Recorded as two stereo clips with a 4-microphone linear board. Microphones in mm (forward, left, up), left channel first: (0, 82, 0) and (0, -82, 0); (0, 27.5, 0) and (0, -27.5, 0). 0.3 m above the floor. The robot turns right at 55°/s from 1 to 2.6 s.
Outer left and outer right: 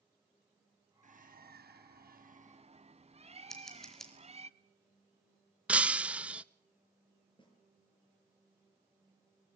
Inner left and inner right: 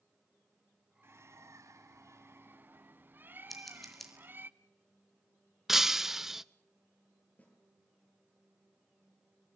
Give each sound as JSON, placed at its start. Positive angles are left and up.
{"t": 1.0, "sound": "a bird", "azimuth_deg": -130, "distance_m": 0.9}
{"t": 3.5, "sound": "scissors", "side_deg": 0, "distance_m": 5.0}
{"t": 5.7, "sound": "breaking glass", "side_deg": -5, "distance_m": 0.6}
{"t": 7.4, "sound": "a snare drum", "side_deg": 30, "distance_m": 7.5}